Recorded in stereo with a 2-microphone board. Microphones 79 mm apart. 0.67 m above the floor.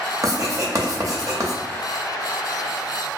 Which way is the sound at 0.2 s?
45° right (ahead or behind).